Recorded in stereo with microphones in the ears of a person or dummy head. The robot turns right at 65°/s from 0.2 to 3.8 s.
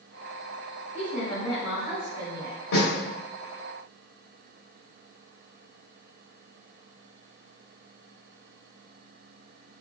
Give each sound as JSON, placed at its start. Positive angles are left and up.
{"t": 0.9, "sound": "a woman speaking", "azimuth_deg": 140, "distance_m": 1.0}
{"t": 2.7, "sound": "a snare drum", "side_deg": 55, "distance_m": 1.5}